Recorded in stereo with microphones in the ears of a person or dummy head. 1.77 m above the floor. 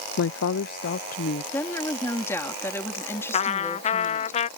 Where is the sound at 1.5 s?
15° left (ahead or behind).